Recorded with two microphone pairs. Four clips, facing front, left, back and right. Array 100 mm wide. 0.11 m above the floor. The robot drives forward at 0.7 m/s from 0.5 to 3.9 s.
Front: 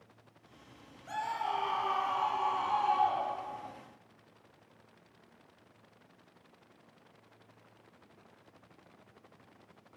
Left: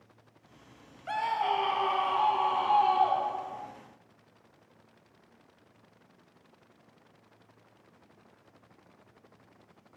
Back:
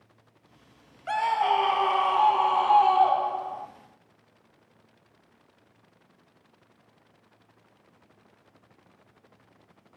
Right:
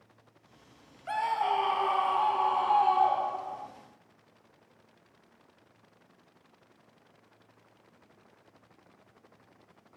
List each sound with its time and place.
1.1 s a scream: 175° right, 2.5 m